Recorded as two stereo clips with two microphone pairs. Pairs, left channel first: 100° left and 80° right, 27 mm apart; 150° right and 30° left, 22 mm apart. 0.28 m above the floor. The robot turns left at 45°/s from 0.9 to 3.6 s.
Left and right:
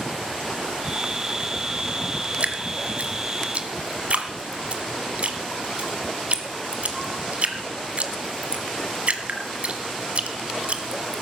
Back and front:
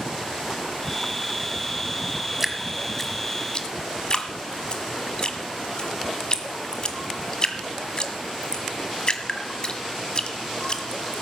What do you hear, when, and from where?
2.4 s dripping: 50° right, 1.6 m; by 11.2 s 105° right, 1.6 m